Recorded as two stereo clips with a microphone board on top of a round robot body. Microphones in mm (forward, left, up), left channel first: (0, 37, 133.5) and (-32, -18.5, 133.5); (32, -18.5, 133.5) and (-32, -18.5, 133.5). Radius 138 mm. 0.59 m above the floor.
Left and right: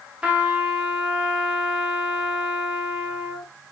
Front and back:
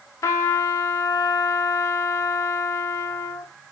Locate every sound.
0.2 s a trumpet: 45° right, 1.0 m